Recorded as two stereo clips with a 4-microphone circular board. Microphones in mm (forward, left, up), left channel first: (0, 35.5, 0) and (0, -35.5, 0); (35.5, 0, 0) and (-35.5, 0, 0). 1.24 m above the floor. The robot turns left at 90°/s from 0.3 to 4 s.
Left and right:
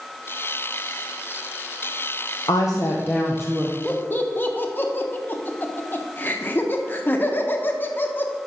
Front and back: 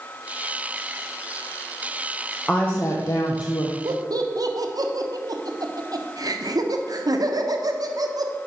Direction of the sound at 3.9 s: 165° left.